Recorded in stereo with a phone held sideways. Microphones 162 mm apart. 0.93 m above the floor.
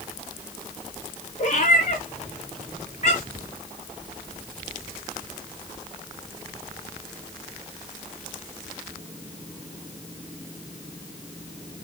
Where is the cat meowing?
50° left (ahead or behind), 4 m.